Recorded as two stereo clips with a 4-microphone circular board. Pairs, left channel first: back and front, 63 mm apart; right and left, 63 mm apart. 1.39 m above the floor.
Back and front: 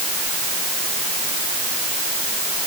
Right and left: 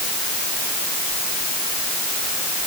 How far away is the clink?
No clink in this recording.